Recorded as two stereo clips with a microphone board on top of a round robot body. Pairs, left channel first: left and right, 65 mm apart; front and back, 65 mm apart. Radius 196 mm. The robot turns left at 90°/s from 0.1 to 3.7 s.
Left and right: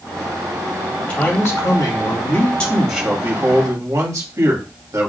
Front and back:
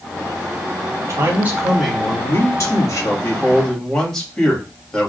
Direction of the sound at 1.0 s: 165° left.